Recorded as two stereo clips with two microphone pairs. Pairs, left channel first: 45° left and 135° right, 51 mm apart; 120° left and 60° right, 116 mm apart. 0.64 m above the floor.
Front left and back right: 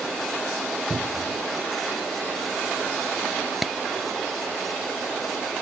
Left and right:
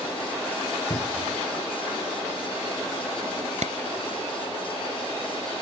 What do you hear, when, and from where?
0.9 s a cupboard door: 170° left
3.6 s a clap: 50° right